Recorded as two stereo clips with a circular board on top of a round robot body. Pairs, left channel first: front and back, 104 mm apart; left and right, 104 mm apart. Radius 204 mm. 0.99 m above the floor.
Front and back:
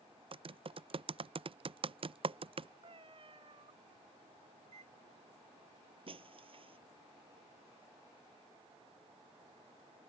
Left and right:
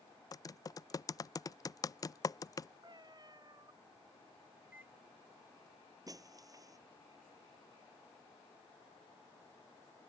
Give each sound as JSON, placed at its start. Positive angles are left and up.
{"t": 0.3, "sound": "typing on a keyboard", "azimuth_deg": 145}
{"t": 2.8, "sound": "a cat meowing", "azimuth_deg": -140}
{"t": 4.6, "sound": "a microwave", "azimuth_deg": -165}
{"t": 6.1, "sound": "breaking glass", "azimuth_deg": -145}